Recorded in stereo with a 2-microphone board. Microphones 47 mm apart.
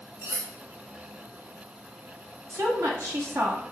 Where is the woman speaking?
70° right (ahead or behind), 1.7 m.